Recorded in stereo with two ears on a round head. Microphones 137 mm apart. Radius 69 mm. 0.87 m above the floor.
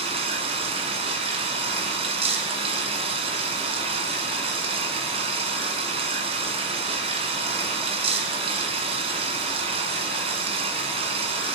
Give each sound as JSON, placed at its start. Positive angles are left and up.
{"t": 0.0, "sound": "running water", "side_deg": -40, "distance_m": 2.0}